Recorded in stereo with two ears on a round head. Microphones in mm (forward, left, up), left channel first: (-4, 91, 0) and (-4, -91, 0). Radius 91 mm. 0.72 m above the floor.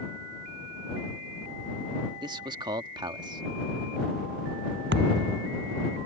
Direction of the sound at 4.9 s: 55° right (ahead or behind).